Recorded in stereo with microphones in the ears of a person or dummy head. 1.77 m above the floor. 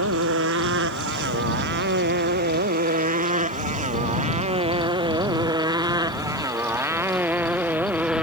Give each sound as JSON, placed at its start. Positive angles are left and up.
{"t": 0.0, "sound": "a motorcycle", "side_deg": -65}